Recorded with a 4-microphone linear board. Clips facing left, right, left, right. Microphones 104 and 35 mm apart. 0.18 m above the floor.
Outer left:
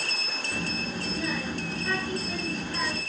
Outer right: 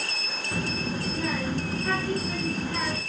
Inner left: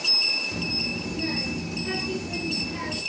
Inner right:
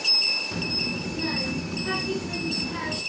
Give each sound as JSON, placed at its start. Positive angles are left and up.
{"t": 0.5, "sound": "a child speaking", "side_deg": -40, "distance_m": 1.9}